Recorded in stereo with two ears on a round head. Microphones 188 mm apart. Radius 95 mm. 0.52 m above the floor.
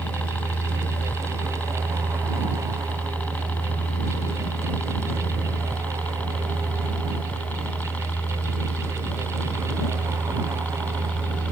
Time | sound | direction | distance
0.0 | a helicopter | 5° left (ahead or behind) | ?